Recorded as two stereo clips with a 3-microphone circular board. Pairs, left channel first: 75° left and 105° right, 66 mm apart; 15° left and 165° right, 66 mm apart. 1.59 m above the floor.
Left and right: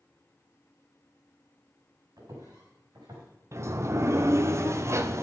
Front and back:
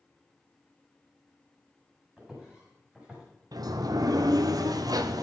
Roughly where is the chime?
No chime in this recording.